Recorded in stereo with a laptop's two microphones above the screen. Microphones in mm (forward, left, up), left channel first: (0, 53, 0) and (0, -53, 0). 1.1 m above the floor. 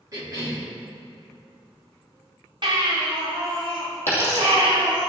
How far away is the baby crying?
About 2.5 m.